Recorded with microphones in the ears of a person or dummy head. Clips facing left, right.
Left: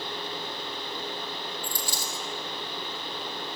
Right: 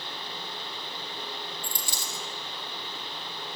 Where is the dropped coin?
25° right (ahead or behind), 2.5 m.